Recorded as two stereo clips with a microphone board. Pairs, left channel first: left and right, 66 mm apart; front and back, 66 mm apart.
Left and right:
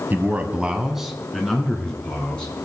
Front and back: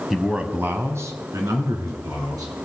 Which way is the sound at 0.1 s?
95° right.